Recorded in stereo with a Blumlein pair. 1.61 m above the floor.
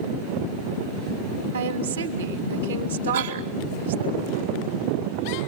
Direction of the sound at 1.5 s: 65° right.